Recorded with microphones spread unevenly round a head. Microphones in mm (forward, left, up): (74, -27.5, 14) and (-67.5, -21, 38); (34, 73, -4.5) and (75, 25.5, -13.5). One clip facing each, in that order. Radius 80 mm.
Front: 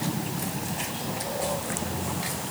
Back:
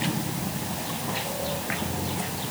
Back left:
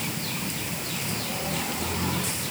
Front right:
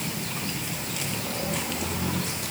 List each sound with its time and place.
Only background noise.